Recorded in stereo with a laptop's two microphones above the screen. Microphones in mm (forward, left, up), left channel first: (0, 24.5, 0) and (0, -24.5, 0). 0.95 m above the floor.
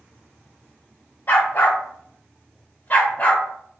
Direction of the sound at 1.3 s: 45° left (ahead or behind).